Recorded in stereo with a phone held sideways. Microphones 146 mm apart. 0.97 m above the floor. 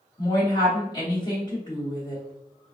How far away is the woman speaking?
About 2.0 m.